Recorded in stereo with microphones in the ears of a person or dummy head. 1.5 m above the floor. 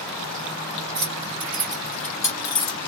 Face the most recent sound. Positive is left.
turn(degrees=25)  # may be behind; listen again after turning